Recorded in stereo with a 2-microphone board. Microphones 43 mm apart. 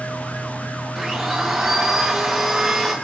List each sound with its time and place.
0.9 s a blender: 10° right (ahead or behind), 6 m